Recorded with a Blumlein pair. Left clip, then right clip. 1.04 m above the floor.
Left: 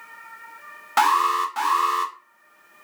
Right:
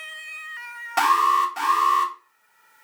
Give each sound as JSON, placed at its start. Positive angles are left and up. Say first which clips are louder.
{"t": 1.0, "sound": "an alarm", "louder": "right 1 dB", "azimuth_deg": 20, "distance_m": 1.7}